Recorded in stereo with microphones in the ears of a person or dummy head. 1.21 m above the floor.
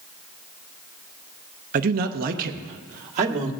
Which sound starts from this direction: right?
A man speaking, at 1.7 s.